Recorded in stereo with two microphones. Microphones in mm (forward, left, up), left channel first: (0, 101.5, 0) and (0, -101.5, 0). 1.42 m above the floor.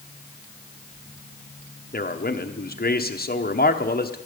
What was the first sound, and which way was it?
A man speaking, 50° left (ahead or behind).